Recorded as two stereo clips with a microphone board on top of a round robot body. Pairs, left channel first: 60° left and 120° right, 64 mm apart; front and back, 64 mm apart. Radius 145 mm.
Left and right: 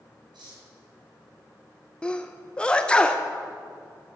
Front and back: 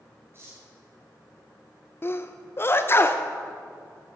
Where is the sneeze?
5° right, 0.7 m.